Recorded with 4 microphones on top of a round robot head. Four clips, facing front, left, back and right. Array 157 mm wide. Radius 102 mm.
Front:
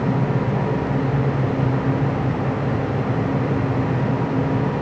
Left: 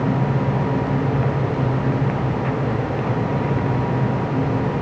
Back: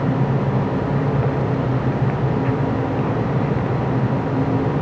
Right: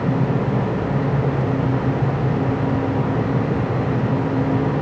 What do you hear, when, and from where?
Only background noise.